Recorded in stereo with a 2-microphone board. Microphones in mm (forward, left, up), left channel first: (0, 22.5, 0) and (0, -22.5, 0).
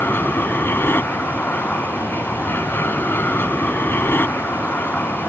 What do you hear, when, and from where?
0.0 s an aircraft: 50° left (ahead or behind)